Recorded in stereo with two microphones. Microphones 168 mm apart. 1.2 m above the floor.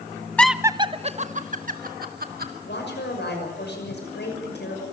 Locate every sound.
0.4 s laughter: 10° left (ahead or behind), 0.6 m; by 2.5 s 55° right (ahead or behind), 2 m
2.6 s a woman speaking: 75° left (ahead or behind), 6 m